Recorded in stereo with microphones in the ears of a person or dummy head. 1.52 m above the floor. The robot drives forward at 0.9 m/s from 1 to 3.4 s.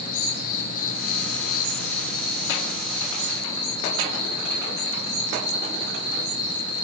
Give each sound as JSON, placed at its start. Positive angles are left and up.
{"t": 0.0, "sound": "an insect", "side_deg": 45, "distance_m": 0.9}